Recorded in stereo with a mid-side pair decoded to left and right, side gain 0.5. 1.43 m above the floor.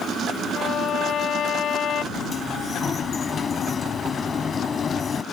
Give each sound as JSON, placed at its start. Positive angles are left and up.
{"t": 0.5, "sound": "a violin", "azimuth_deg": 55}
{"t": 2.1, "sound": "a sliding door", "azimuth_deg": 40}